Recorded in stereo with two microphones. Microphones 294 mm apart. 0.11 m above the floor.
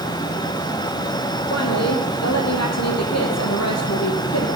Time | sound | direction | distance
1.5 | a woman speaking | 60° left (ahead or behind) | 4 m